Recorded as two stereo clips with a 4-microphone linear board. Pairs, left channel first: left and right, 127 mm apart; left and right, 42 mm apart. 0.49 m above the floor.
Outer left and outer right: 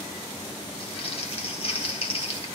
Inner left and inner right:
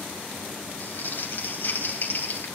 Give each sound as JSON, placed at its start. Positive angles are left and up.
{"t": 0.8, "sound": "crumpling", "side_deg": 50, "distance_m": 3.5}